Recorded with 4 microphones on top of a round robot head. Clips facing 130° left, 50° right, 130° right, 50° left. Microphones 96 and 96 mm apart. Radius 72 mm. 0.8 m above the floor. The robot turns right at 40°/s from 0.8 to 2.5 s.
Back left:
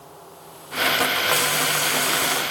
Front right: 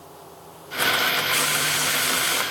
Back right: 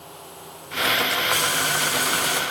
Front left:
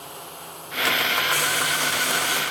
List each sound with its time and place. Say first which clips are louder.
1.3 s frying: back left 2 dB, back right 1 dB; 155° left, 5 m; by 2.4 s 160° right, 5 m